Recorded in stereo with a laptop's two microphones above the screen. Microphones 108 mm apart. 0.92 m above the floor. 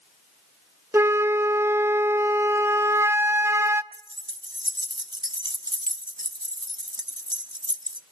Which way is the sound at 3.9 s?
40° right (ahead or behind).